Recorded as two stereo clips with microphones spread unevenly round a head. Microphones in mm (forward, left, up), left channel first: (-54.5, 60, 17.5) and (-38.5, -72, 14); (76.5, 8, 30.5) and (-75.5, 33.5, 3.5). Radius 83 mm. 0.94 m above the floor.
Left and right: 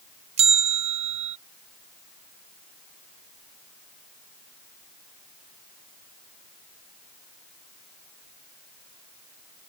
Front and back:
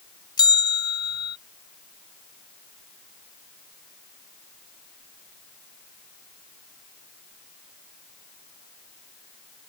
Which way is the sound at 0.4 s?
75° right.